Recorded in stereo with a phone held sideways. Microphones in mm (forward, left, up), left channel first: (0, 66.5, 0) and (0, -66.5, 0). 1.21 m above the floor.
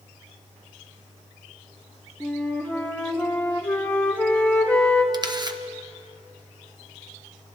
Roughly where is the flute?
Centre.